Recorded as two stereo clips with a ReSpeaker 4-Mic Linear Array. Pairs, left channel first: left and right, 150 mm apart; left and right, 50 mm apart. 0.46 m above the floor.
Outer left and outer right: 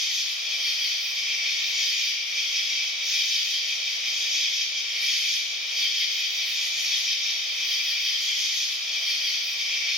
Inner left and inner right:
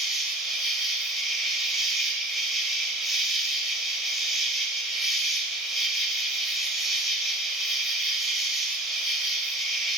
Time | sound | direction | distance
0.0 | an insect | 5° right (ahead or behind) | 1.8 m